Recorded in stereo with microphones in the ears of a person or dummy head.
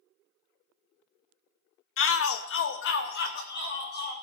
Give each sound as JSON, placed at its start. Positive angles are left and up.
{"t": 2.0, "sound": "a shout", "side_deg": 60, "distance_m": 0.7}